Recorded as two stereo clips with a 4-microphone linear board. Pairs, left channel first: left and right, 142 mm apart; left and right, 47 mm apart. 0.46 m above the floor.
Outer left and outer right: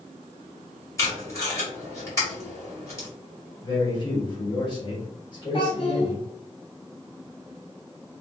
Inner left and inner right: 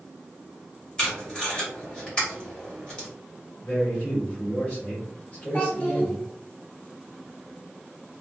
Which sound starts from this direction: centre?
Tape being pulled, at 1.0 s.